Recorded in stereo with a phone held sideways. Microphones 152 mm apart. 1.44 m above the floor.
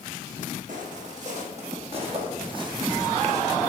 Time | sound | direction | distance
0.7 | footsteps | 60° right (ahead or behind) | 3.5 m